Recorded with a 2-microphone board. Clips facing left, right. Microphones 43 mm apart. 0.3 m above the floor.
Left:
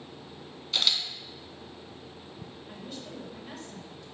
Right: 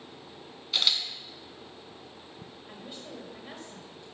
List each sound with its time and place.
0.7 s a camera shutter: 5° right (ahead or behind), 0.6 m
2.7 s a woman speaking: 20° right (ahead or behind), 0.9 m